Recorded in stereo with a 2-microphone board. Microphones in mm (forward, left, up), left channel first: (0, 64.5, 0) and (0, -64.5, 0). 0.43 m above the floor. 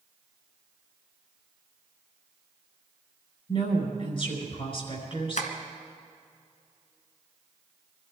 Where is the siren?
No siren in this recording.